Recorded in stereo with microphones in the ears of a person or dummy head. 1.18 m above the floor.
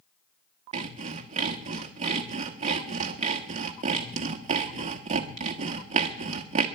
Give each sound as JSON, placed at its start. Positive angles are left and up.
{"t": 0.7, "sound": "sawing", "side_deg": -40, "distance_m": 1.2}